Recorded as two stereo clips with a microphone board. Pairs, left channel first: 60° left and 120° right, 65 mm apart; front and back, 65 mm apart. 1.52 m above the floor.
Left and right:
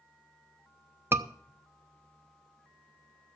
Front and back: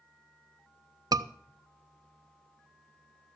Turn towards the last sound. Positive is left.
turn(degrees=-175)